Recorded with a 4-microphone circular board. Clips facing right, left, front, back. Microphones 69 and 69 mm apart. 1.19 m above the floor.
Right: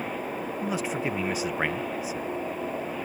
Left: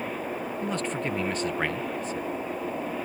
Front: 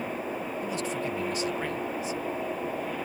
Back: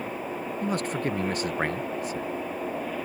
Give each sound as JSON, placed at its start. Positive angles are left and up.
{"t": 0.6, "sound": "a man speaking", "azimuth_deg": -170}